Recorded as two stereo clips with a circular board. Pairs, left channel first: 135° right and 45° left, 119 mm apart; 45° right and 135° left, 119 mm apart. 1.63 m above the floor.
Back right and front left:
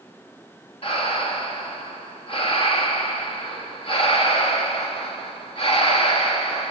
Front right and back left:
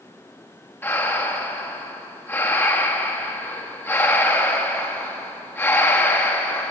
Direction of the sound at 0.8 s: 115° right.